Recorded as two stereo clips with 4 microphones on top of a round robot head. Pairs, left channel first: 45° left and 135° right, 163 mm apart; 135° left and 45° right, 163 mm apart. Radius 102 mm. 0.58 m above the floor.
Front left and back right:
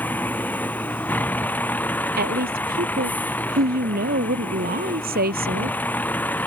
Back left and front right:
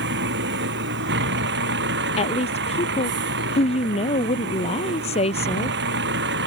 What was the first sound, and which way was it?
A vehicle, 35° right.